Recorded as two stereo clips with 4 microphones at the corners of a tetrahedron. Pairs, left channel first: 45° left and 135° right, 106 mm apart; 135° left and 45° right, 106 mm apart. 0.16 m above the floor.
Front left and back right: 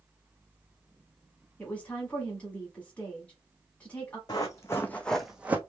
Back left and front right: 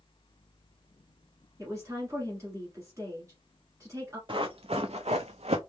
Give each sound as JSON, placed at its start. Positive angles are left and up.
{"t": 1.6, "sound": "a woman speaking", "azimuth_deg": -20, "distance_m": 1.2}
{"t": 4.3, "sound": "running footsteps", "azimuth_deg": -5, "distance_m": 0.8}